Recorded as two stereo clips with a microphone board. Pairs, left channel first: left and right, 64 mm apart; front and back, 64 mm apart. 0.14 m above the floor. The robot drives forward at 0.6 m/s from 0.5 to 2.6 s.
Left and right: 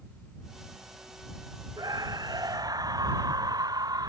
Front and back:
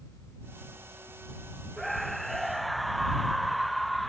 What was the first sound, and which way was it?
A scream, 85° right.